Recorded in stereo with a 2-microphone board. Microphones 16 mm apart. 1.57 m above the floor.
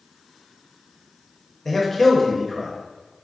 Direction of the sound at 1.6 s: 10° left (ahead or behind).